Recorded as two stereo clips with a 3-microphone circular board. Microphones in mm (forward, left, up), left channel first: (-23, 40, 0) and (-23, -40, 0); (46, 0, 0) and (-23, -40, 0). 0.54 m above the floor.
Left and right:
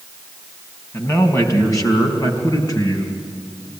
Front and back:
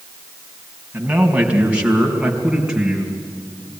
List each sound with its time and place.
0.9 s a man speaking: 145° left, 4 m; by 3.2 s 130° left, 6 m